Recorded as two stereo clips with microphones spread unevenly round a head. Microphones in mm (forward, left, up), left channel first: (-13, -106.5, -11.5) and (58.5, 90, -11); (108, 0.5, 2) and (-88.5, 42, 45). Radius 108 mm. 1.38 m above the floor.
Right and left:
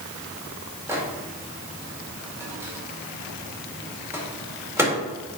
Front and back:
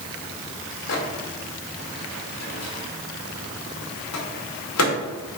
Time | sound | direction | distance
0.9 | a microwave | 10° right | 1.9 m